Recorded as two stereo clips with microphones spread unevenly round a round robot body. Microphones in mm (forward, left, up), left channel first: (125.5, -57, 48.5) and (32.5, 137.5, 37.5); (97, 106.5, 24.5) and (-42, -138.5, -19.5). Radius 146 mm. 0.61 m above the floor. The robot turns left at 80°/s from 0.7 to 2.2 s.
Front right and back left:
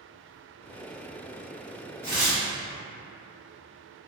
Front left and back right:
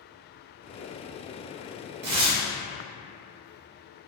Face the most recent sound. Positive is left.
turn(degrees=-145)